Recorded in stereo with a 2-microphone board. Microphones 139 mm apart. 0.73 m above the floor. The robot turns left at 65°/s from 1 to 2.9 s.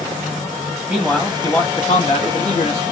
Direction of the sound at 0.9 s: 165° right.